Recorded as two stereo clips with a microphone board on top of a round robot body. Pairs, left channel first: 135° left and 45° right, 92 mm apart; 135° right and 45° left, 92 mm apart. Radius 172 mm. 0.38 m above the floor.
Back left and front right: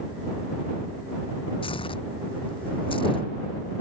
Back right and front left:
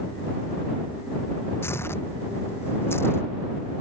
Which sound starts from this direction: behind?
Tearing paper, at 1.6 s.